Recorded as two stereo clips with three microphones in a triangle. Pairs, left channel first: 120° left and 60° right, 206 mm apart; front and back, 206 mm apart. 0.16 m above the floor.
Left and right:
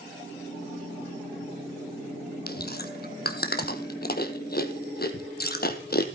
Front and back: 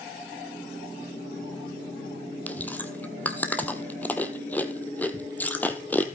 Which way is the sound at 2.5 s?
80° left.